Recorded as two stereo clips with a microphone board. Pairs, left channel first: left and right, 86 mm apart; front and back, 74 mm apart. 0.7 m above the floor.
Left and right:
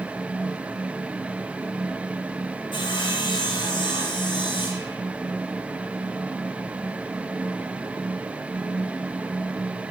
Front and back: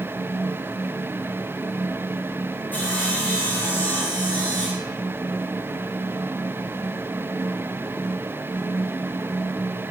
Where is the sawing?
70° left, 6 m.